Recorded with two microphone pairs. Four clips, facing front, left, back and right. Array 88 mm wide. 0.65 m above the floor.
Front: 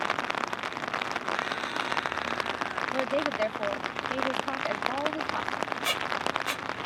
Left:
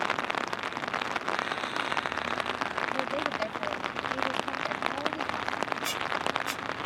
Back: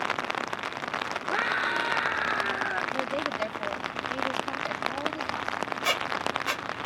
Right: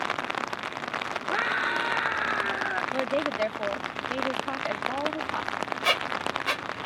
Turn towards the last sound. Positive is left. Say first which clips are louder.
# right 3 dB, back 4 dB
turn(degrees=-110)